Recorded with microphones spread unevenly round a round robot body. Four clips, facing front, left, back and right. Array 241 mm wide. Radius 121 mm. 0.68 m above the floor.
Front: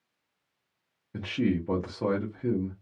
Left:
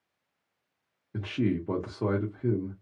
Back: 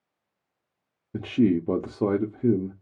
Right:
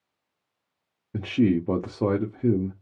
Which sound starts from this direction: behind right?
A man speaking, at 1.1 s.